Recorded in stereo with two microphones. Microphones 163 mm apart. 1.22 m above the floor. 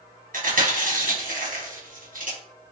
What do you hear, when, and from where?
0.3 s chewing: 60° right (ahead or behind), 1.1 m